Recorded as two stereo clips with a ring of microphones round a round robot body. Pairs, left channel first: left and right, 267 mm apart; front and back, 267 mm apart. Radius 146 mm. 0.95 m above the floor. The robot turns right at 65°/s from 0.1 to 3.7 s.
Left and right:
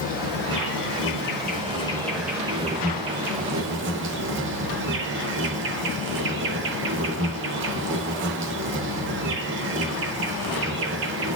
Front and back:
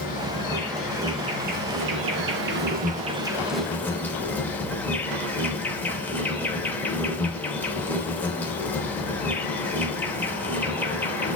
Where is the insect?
45° left, 0.8 m; by 11.3 s 80° right, 0.8 m.